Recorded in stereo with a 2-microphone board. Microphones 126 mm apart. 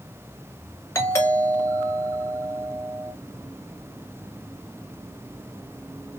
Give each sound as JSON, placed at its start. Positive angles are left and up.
{"t": 0.9, "sound": "a doorbell", "side_deg": 20, "distance_m": 1.6}